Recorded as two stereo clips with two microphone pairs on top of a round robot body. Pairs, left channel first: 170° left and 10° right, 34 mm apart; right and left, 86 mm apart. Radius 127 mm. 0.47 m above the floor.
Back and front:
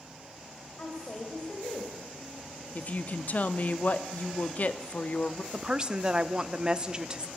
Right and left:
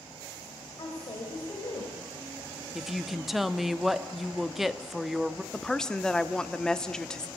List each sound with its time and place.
0.8 s a woman speaking: 130° right, 3 m
2.8 s a woman speaking: 170° left, 0.9 m
5.5 s a woman speaking: straight ahead, 1.1 m